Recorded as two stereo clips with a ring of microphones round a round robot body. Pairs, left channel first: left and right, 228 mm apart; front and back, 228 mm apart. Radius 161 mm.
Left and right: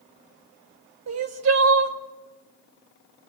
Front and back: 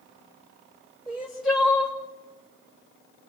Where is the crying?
90° right, 1.9 m.